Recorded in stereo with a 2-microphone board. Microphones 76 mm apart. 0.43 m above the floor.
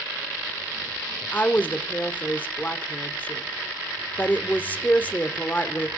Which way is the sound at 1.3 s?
25° left (ahead or behind).